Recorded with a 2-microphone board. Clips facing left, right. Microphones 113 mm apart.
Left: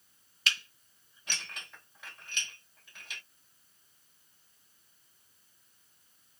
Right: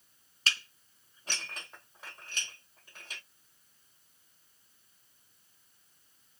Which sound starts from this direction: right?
Dishes clattering, at 0.5 s.